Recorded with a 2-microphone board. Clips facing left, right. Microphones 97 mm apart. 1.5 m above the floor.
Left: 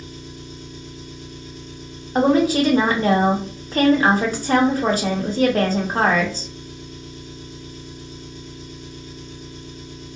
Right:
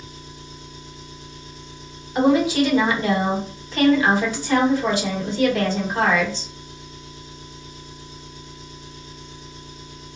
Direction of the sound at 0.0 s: 55° left (ahead or behind).